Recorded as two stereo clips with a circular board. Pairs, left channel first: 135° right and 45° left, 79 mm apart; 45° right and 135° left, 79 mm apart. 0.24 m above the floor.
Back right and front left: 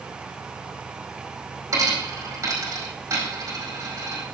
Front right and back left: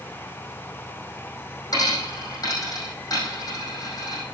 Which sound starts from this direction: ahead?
A dropped coin, at 1.7 s.